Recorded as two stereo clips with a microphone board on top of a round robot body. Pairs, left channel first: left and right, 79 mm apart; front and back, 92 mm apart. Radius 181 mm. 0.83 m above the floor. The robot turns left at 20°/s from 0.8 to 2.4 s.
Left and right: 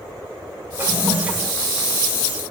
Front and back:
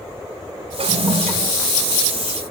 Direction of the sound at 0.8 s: 155° right.